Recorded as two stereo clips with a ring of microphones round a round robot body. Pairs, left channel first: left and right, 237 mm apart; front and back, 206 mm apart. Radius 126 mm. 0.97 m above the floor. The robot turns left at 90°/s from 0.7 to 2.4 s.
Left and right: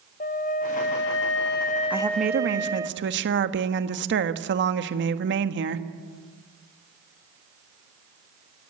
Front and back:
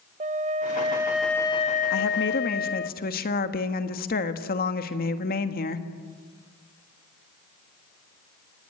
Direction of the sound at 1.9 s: 5° right.